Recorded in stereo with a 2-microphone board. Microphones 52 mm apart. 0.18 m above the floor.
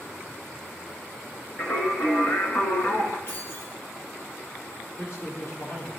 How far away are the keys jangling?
About 3 m.